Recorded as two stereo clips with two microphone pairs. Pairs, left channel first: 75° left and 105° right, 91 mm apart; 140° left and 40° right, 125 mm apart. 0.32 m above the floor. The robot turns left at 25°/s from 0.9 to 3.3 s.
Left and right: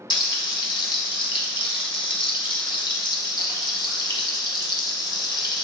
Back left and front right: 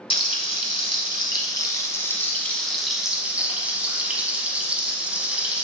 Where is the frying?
100° left, 1.0 m; by 5.6 s 40° left, 1.0 m.